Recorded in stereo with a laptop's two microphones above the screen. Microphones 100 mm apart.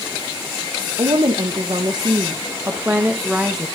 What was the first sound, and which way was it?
A woman speaking, 60° right (ahead or behind).